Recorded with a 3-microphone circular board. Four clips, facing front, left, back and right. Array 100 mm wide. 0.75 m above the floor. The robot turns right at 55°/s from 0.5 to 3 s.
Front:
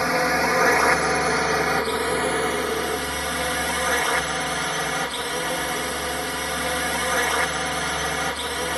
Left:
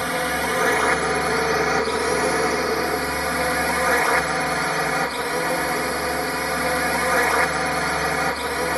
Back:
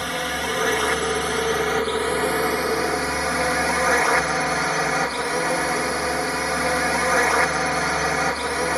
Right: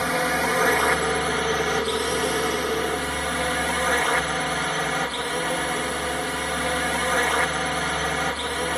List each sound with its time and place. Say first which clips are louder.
0.0 s a drone: even, front 5 dB; straight ahead; by 8.8 s 135° left